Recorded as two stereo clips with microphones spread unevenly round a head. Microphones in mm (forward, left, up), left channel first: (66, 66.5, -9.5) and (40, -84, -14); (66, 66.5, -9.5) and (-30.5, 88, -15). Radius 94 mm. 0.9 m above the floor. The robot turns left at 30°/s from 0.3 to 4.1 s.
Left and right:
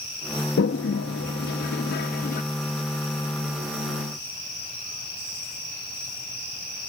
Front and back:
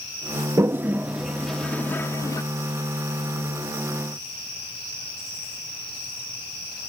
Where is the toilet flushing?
100° left; by 2.4 s 45° left.